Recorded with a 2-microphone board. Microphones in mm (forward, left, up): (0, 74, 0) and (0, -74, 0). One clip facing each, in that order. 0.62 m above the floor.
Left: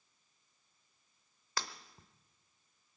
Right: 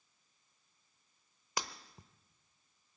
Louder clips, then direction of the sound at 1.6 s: Right 1 dB; 15° right (ahead or behind).